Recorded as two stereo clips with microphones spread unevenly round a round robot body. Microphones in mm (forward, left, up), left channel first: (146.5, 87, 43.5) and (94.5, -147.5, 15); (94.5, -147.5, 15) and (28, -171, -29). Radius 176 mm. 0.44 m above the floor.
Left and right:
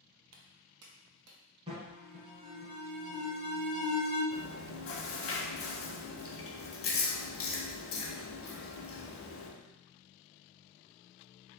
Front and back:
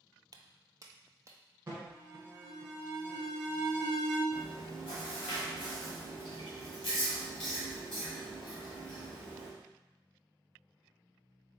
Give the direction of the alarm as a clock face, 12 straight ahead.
5 o'clock.